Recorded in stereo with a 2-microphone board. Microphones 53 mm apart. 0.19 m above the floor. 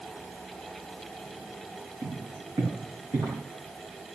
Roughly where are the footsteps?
Right.